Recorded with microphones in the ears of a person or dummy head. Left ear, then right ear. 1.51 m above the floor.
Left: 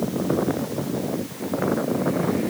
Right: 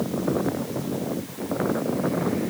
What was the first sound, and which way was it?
Only background noise.